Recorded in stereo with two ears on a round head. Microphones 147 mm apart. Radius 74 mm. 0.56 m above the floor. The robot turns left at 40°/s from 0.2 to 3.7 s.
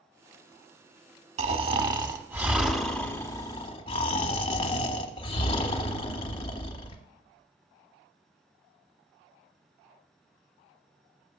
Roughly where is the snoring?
Behind right.